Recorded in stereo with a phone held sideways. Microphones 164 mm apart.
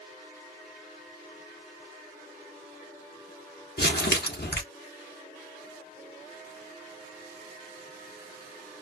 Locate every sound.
3.8 s crumpling: 75° left (ahead or behind), 1.1 m